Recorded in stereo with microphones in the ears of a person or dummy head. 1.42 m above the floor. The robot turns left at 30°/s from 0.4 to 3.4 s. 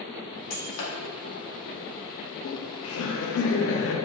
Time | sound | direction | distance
0.5 | breaking glass | 75° left (ahead or behind) | 1.8 m
2.3 | laughter | 100° left | 0.9 m